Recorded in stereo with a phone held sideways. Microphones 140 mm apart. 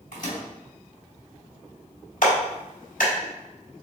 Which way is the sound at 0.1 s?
80° left.